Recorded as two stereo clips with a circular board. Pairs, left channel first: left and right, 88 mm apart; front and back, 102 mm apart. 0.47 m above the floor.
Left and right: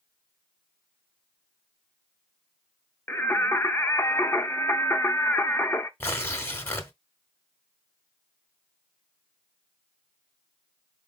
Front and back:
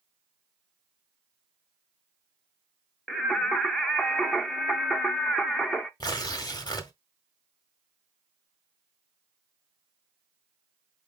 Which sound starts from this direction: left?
Singing, at 3.1 s.